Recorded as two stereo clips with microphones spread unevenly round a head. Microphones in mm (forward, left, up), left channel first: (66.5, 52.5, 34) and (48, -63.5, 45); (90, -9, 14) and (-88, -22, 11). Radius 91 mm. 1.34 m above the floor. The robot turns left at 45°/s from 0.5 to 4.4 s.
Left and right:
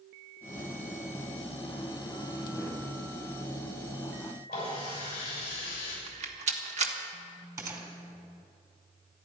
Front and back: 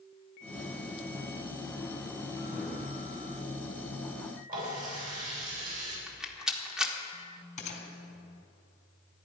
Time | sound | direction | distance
4.5 | a running tap | 135° left | 6.5 m
6.1 | a rattle | 90° right | 1.5 m
7.6 | a gunshot | 45° right | 2.5 m